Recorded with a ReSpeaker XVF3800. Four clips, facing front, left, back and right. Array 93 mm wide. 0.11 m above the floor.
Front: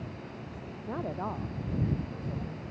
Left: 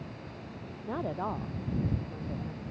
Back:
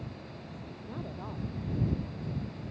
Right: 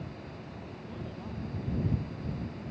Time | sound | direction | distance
0.9 | a woman speaking | 55° left | ?